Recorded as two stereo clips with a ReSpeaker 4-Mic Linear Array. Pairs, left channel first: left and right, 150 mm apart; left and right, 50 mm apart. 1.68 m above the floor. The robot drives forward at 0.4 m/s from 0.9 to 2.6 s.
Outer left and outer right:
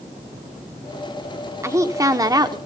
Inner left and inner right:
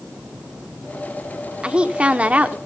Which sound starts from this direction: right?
A woman speaking, at 1.6 s.